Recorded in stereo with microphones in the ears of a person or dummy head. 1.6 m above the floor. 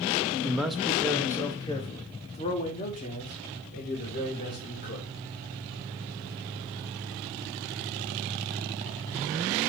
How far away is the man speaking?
About 0.8 m.